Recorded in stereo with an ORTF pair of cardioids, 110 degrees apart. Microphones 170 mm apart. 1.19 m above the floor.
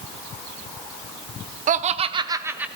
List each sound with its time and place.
1.7 s laughter: 50° right, 0.7 m; by 2.7 s 5° right, 0.8 m